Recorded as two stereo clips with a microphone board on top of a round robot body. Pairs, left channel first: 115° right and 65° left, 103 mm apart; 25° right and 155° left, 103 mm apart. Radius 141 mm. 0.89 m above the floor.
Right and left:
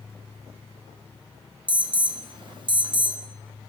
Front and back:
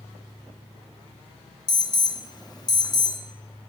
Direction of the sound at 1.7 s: 25° left.